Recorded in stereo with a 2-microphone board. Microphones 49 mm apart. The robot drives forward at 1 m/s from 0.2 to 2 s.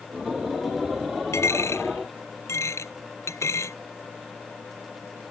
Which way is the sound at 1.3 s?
70° left (ahead or behind).